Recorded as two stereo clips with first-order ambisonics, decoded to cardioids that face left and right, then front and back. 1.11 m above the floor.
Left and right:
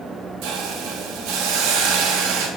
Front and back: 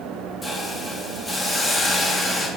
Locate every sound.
0.4 s a hiss: 75° right, 1.6 m